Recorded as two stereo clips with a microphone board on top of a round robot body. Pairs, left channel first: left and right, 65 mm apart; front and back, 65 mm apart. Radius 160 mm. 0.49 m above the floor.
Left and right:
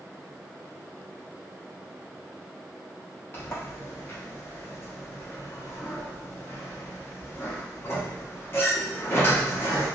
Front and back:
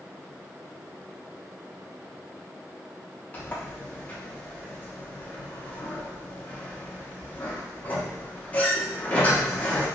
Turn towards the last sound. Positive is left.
turn(degrees=55)